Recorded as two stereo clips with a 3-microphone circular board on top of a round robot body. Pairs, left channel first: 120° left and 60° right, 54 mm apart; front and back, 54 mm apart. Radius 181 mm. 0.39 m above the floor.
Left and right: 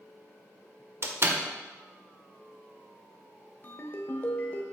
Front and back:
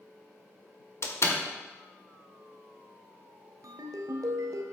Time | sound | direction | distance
1.0 | a door slam | 30° right | 1.7 m
3.6 | a ringtone | 175° left | 1.0 m